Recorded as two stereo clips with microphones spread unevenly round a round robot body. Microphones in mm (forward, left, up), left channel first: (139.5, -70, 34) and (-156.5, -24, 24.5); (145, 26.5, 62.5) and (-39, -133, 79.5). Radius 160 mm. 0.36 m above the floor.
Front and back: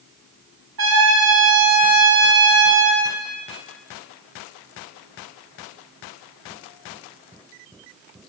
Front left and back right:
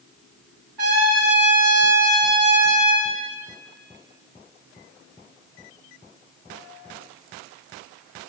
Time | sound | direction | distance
0.8 | a trumpet | 150° right | 2 m